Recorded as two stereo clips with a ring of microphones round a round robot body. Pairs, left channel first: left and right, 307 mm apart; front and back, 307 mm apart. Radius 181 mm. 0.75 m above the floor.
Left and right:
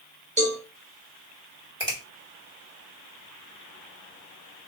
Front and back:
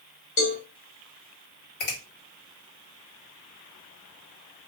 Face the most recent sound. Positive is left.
turn(degrees=-15)